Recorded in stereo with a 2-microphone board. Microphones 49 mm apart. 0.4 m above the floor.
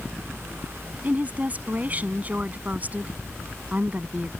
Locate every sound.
1.0 s a woman speaking: 35° right (ahead or behind)